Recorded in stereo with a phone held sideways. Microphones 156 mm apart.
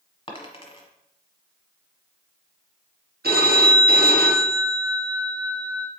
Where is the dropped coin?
35° left (ahead or behind), 1.1 m.